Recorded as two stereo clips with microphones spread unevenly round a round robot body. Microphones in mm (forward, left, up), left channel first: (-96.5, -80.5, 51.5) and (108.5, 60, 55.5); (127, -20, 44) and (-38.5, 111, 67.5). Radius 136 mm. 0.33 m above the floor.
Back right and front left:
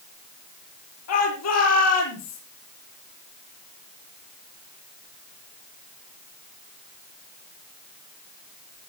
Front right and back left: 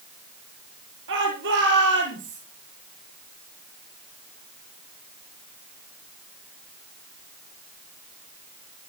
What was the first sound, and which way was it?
A shout, 175° right.